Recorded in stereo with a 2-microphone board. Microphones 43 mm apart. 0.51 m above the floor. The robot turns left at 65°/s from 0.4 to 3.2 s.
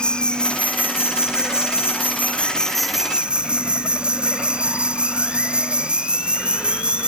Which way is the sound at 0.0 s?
160° left.